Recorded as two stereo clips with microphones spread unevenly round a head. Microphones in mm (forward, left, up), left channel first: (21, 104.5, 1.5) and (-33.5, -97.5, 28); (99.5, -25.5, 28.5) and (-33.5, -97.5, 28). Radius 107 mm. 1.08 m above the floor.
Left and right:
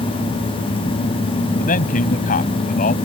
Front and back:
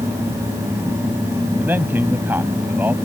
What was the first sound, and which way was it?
A man speaking, 125° left.